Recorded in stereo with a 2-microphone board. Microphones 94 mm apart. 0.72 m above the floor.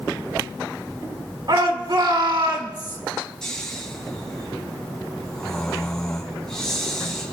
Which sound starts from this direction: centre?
Snoring, at 3.4 s.